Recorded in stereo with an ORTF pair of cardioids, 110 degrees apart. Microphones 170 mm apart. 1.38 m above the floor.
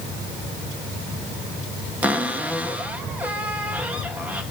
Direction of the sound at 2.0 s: 10° right.